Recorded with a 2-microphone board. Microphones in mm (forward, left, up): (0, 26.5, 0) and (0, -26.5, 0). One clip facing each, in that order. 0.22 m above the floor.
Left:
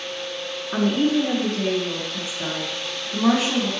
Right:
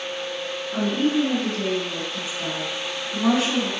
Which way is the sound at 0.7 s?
45° left (ahead or behind).